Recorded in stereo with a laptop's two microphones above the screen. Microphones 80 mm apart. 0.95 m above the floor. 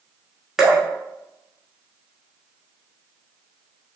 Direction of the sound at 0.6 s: 5° right (ahead or behind).